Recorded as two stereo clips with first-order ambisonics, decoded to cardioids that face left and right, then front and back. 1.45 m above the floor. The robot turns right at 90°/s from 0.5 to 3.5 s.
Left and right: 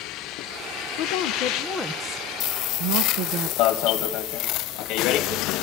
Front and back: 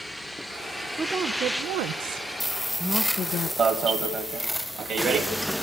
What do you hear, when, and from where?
0.9 s a woman speaking: 90° left, 0.7 m; by 3.5 s 40° right, 0.7 m
3.6 s an alarm: 120° left, 2 m